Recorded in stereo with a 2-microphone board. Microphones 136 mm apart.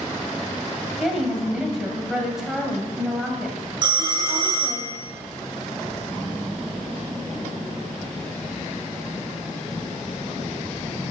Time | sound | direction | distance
1.0 | a woman speaking | 5° right (ahead or behind) | 1.6 m
3.8 | a phone ringing | 35° right (ahead or behind) | 1.0 m